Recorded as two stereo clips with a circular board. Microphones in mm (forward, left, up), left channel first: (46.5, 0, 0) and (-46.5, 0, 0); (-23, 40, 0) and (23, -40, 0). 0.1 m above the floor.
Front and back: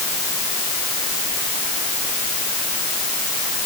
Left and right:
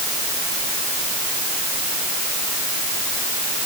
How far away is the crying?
I don't hear crying.